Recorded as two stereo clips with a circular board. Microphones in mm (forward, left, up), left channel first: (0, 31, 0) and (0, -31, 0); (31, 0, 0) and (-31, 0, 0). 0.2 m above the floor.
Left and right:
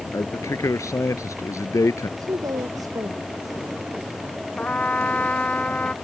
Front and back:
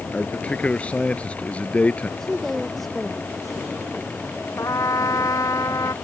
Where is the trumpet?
25° left.